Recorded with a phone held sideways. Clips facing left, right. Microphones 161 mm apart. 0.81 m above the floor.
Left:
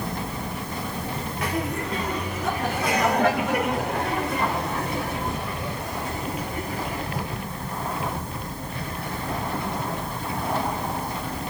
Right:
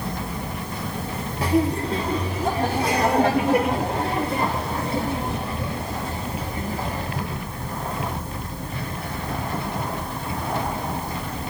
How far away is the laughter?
About 1.8 m.